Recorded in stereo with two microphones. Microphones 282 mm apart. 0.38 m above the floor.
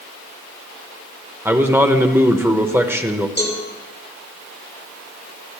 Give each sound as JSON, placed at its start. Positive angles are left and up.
{"t": 1.4, "sound": "a man speaking", "side_deg": -10, "distance_m": 0.9}
{"t": 3.4, "sound": "a cowbell", "side_deg": 25, "distance_m": 2.5}